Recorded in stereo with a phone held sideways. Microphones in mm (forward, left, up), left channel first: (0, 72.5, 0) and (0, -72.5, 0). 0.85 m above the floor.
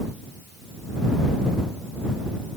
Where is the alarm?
I don't hear an alarm.